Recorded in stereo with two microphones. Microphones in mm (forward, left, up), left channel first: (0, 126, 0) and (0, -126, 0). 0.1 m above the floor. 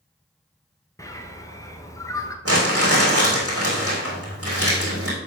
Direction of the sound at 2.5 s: 65° right (ahead or behind).